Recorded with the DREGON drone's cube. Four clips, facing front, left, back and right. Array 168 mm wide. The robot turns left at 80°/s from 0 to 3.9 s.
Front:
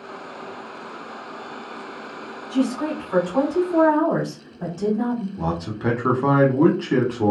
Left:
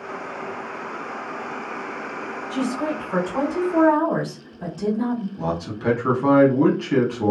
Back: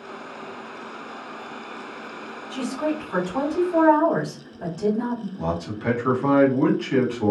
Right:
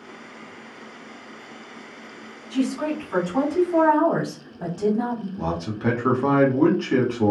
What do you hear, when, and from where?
2.5 s a woman speaking: 40° left, 1.5 m; by 5.3 s 70° right, 1.5 m
5.4 s a man speaking: 20° right, 0.9 m